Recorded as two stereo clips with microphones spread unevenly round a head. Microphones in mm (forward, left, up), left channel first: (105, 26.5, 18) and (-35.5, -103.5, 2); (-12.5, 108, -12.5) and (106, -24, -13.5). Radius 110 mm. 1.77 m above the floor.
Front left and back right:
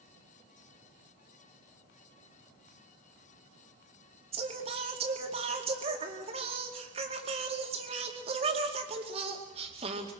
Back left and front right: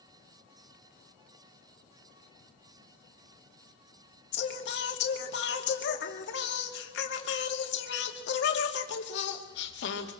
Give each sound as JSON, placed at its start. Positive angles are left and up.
{"t": 4.3, "sound": "singing", "azimuth_deg": 155, "distance_m": 2.5}